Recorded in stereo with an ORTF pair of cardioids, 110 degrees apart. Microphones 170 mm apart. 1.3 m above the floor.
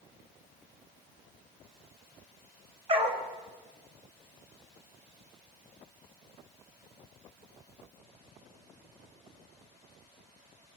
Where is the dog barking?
35° right, 2.5 m.